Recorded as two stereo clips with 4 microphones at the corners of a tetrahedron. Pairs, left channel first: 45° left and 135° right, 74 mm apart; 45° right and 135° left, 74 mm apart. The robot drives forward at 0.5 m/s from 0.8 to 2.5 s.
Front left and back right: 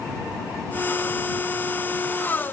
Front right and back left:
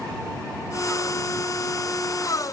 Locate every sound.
Only background noise.